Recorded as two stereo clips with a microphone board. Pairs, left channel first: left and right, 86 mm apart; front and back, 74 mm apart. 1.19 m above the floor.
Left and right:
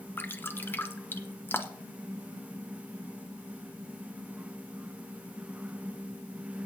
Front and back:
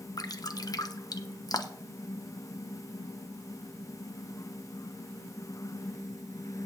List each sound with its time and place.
0.2 s dripping: 25° left, 0.9 m